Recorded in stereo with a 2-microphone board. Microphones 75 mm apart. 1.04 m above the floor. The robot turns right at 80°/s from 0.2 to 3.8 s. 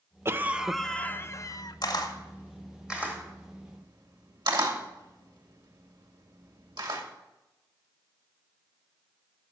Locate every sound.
0.2 s a cough: 40° right, 0.6 m; by 1.8 s 80° left, 0.6 m
1.8 s a camera shutter: 70° left (ahead or behind), 2 m; by 7.0 s 70° right (ahead or behind), 2 m